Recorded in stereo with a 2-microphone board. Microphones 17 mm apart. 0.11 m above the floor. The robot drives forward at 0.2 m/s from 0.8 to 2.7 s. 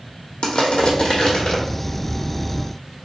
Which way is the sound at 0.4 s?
50° left (ahead or behind).